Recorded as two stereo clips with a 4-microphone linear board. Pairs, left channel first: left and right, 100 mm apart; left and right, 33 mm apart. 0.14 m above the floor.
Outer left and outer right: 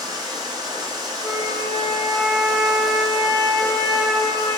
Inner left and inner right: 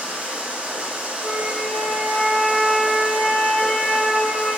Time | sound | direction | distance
0.0 | running water | 40° right (ahead or behind) | 0.7 m
1.2 | a flute | 25° left (ahead or behind) | 0.6 m